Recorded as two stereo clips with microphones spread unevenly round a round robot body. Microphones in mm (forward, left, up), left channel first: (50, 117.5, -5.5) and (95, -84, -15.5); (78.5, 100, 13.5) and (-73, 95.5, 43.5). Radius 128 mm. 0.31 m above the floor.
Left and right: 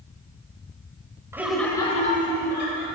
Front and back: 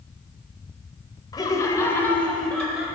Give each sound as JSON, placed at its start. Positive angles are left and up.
{"t": 1.3, "sound": "laughter", "azimuth_deg": -10, "distance_m": 1.1}